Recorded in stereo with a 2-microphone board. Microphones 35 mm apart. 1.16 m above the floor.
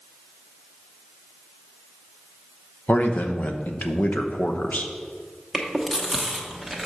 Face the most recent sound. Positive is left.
turn(degrees=0)  # may be behind; listen again after turning